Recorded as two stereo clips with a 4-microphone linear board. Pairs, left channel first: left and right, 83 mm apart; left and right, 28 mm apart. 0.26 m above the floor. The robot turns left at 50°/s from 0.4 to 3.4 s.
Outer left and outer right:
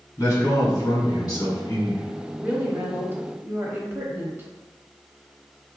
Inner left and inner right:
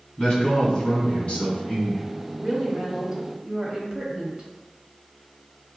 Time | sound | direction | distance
0.2 | a man speaking | 130° left | 1.6 m
2.4 | a woman speaking | 10° right (ahead or behind) | 1.0 m